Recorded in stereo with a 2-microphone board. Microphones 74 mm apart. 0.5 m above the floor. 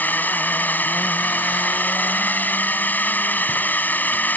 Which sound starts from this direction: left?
A drone, at 0.0 s.